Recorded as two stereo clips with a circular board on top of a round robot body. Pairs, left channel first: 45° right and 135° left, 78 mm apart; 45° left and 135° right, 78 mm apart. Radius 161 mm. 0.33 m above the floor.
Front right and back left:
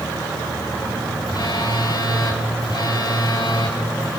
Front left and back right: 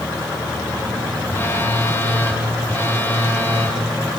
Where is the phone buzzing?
15° right, 9 m.